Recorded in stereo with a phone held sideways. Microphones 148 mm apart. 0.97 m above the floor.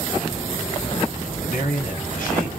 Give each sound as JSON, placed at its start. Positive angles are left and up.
{"t": 1.4, "sound": "a man speaking", "side_deg": 70, "distance_m": 1.9}